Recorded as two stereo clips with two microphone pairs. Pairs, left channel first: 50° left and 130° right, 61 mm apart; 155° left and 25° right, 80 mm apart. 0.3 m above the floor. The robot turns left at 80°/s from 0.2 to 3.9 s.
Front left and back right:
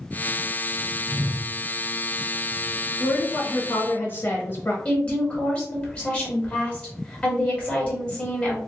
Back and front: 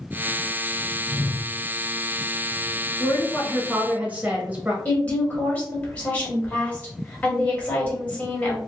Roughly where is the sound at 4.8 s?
Left.